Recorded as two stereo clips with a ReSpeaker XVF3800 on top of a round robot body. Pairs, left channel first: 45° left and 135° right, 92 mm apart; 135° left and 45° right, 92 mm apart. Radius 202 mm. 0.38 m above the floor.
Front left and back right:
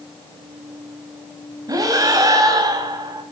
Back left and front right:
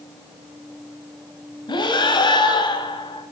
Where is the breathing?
175° left, 2.5 m.